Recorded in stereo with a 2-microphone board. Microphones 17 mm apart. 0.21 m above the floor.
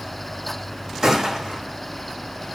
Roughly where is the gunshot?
Right.